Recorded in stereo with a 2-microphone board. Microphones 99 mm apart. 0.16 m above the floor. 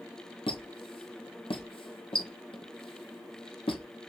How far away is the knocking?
I don't hear knocking.